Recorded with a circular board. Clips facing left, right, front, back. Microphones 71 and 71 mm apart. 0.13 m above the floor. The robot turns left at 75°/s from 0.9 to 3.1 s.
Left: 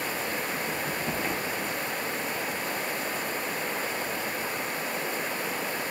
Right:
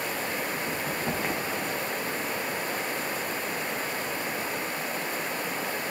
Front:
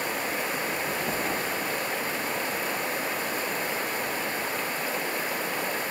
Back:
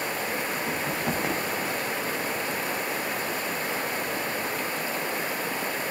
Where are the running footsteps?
125° right, 3 m; by 1.9 s 140° left, 3.5 m.